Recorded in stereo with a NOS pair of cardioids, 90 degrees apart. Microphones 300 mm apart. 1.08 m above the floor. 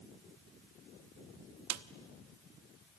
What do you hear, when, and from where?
1.7 s a snare drum: 60° right, 1.0 m